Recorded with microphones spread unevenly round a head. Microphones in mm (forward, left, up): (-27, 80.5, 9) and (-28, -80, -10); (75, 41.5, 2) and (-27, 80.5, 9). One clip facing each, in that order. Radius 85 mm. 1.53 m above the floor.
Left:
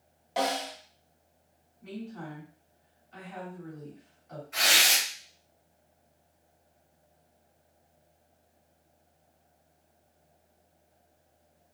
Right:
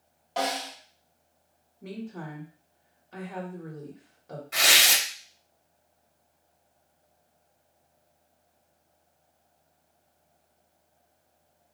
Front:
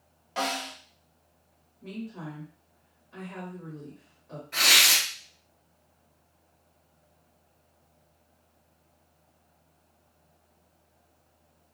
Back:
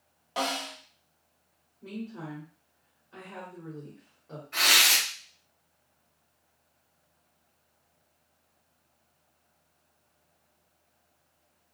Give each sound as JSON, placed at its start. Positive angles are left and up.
{"t": 0.4, "sound": "a snare drum", "azimuth_deg": 135, "distance_m": 1.1}
{"t": 1.8, "sound": "a woman speaking", "azimuth_deg": -125, "distance_m": 1.4}
{"t": 4.5, "sound": "tearing paper", "azimuth_deg": -85, "distance_m": 1.4}